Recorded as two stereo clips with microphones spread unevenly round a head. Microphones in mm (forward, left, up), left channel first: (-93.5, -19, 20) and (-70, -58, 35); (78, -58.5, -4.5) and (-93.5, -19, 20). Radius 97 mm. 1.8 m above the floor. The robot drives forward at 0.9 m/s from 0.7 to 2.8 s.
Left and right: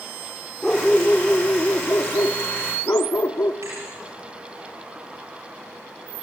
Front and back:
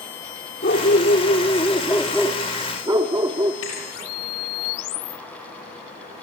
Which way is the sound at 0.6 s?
20° left.